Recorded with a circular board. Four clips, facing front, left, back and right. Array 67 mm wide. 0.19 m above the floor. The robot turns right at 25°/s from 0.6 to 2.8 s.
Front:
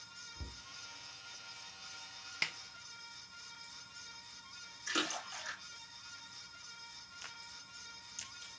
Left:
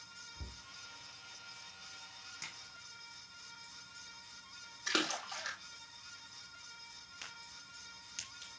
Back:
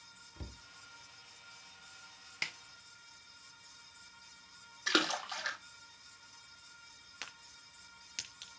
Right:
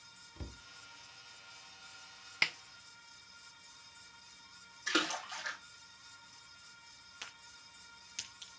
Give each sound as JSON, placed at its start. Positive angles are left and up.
{"t": 0.4, "sound": "a cupboard door", "azimuth_deg": -125, "distance_m": 0.9}
{"t": 2.4, "sound": "a snare drum", "azimuth_deg": -85, "distance_m": 0.6}
{"t": 4.9, "sound": "a splash", "azimuth_deg": 175, "distance_m": 2.5}
{"t": 7.2, "sound": "a crack", "azimuth_deg": -175, "distance_m": 4.0}